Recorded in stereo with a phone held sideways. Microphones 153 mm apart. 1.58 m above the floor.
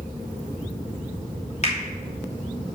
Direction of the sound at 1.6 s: 45° left (ahead or behind).